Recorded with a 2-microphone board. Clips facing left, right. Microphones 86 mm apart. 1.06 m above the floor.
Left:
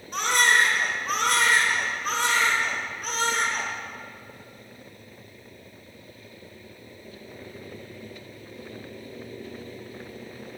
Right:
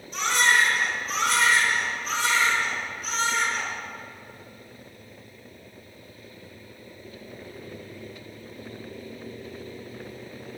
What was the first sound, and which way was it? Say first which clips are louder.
A baby crying: left 1 dB; 55° left (ahead or behind).